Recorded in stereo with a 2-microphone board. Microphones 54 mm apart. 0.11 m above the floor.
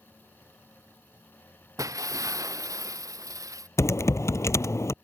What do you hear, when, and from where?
1.8 s breaking glass: 85° right
3.8 s typing on a keyboard: 60° left (ahead or behind)